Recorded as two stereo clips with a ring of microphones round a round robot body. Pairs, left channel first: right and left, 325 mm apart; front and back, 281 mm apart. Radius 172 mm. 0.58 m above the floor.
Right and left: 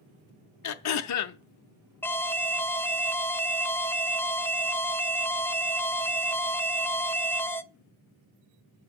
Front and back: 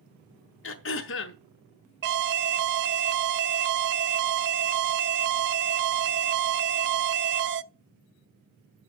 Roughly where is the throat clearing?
Ahead right.